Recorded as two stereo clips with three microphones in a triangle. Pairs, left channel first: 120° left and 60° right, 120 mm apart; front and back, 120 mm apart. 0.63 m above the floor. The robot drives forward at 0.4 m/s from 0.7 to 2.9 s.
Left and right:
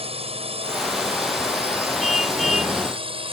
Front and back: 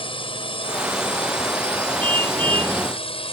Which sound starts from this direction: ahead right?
A drone, at 0.0 s.